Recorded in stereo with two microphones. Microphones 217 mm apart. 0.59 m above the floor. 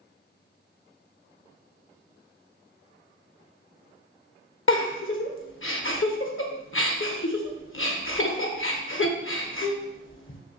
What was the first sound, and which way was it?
A giggle, 65° left (ahead or behind).